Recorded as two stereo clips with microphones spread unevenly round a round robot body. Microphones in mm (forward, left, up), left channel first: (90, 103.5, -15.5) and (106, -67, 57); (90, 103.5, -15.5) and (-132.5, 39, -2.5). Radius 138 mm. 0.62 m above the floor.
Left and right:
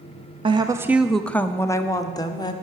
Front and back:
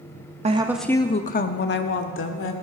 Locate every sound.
0.4 s a woman speaking: 165° right, 0.6 m; by 2.5 s 40° left, 1.5 m